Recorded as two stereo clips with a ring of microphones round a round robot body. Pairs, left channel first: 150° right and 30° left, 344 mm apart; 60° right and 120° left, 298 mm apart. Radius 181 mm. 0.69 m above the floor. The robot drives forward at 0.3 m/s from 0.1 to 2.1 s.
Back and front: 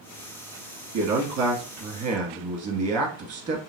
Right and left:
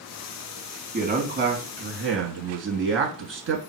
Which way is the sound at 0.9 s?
65° left.